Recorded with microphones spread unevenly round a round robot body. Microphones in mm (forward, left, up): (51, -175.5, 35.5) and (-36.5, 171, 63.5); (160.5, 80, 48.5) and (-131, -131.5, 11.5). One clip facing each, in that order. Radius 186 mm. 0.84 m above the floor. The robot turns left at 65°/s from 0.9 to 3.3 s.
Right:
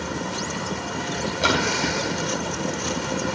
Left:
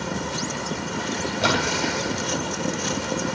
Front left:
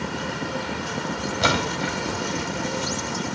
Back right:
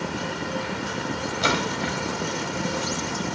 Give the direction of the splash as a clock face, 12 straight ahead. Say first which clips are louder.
Right 1 dB, front left 1 dB; 12 o'clock.